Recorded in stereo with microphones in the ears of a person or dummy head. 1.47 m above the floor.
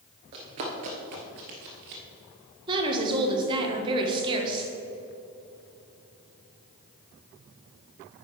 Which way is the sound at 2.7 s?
25° right (ahead or behind).